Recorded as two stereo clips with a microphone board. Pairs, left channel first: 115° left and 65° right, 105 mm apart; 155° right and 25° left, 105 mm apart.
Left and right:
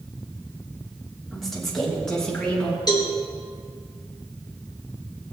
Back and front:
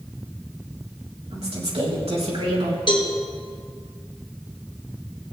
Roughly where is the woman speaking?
Ahead left.